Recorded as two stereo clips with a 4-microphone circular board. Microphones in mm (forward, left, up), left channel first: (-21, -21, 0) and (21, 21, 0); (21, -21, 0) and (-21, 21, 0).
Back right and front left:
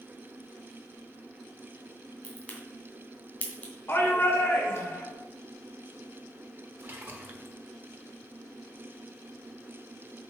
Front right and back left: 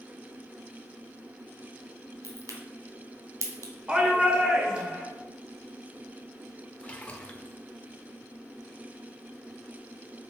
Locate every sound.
2.2 s a crack: 160° left, 2.5 m
3.9 s a shout: 160° right, 2 m
6.8 s a splash: 10° left, 1.2 m